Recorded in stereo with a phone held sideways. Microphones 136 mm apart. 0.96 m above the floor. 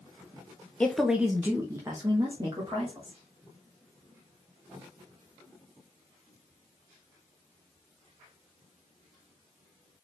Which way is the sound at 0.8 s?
10° left (ahead or behind).